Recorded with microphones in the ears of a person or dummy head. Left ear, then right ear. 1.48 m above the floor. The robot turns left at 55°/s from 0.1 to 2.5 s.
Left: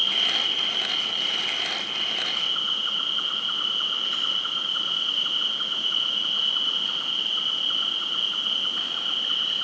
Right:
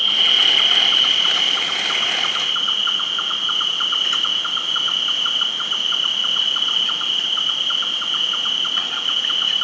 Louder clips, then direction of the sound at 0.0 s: Right 8 dB; 20° right.